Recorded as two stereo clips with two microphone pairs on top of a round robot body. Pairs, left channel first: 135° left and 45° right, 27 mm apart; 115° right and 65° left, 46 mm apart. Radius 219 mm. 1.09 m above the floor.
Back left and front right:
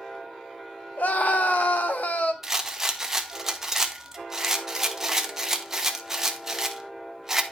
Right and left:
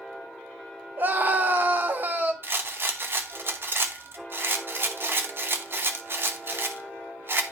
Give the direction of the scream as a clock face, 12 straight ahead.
8 o'clock.